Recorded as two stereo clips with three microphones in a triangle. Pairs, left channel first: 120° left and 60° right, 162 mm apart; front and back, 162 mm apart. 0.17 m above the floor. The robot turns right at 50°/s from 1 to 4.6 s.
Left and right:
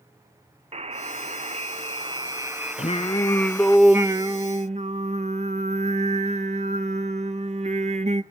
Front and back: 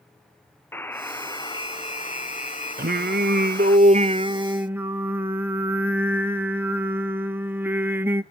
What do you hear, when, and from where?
0.7 s a buzzer: 70° right, 0.5 m; by 3.8 s 70° left, 0.5 m
2.8 s singing: 165° left, 0.7 m; by 8.2 s 100° right, 0.7 m